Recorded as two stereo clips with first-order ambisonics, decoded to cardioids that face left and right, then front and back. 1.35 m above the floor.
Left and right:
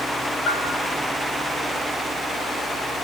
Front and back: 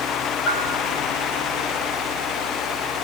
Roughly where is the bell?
Ahead left.